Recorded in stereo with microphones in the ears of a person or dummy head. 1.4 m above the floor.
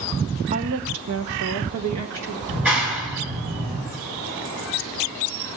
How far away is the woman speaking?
About 0.9 m.